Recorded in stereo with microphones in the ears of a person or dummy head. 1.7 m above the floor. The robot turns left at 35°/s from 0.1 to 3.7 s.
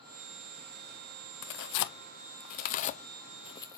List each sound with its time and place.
1.4 s tearing paper: 55° left (ahead or behind), 0.6 m; by 3.8 s 20° left (ahead or behind), 0.6 m